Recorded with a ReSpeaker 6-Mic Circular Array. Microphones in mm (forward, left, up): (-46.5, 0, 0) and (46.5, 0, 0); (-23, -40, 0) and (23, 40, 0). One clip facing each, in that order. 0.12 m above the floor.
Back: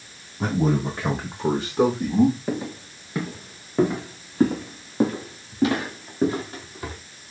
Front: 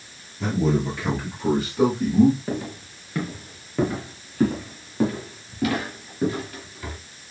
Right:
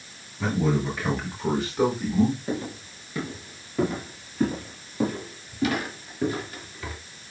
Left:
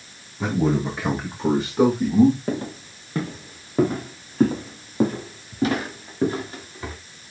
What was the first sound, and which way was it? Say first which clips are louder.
A man speaking: even, left 3 dB; 130° left.